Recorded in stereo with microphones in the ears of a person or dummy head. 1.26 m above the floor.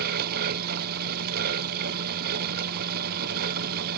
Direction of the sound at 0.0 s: 50° right (ahead or behind).